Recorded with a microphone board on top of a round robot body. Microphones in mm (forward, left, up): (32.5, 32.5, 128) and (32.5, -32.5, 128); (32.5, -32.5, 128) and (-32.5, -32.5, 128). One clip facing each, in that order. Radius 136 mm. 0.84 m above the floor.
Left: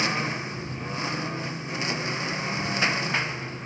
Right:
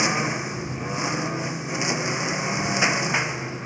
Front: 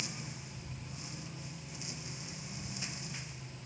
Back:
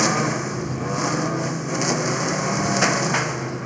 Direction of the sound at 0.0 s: 165° right.